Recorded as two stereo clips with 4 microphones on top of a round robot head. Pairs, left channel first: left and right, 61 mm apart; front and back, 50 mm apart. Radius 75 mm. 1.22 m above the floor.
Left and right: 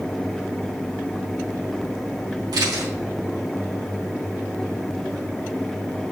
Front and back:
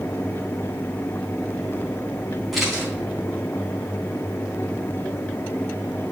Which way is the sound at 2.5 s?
90° right.